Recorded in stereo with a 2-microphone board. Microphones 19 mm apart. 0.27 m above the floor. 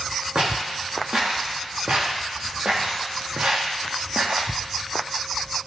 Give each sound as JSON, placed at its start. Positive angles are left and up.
{"t": 0.3, "sound": "footsteps", "side_deg": -55, "distance_m": 3.5}